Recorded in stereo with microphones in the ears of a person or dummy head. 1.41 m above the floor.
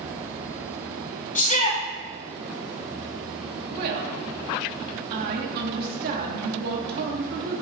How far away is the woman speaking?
About 3 m.